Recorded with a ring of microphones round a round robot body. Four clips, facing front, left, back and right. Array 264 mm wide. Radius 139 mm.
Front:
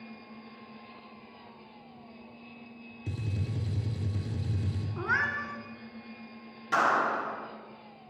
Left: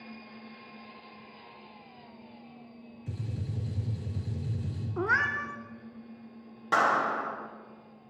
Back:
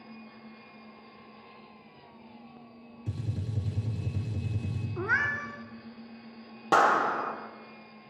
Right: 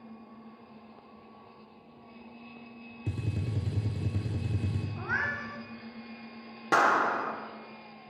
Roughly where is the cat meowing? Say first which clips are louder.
Left 6 dB, back 1 dB; left.